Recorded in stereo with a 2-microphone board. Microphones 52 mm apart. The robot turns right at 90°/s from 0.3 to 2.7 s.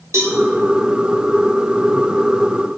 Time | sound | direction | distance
0.1 | a cowbell | 60° right (ahead or behind) | 1.2 m